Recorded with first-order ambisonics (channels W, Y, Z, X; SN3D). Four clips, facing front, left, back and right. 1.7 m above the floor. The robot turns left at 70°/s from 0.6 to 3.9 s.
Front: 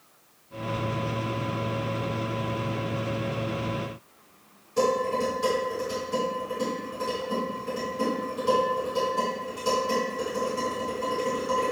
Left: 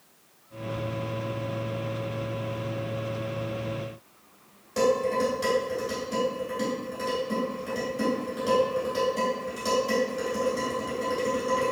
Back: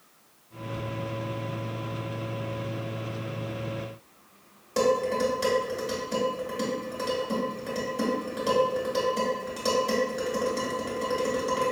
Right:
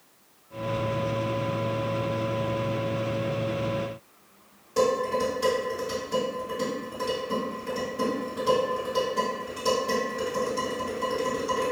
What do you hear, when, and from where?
4.8 s dishes clattering: 175° left, 1.8 m